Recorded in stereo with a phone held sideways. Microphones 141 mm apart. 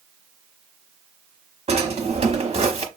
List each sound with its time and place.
1.7 s a drawer: 45° right (ahead or behind), 1.1 m